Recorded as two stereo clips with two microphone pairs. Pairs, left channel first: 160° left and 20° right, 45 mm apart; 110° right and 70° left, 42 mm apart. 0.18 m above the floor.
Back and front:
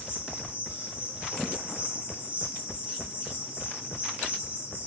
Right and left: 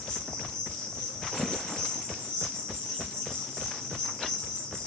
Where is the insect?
50° right, 2.5 m.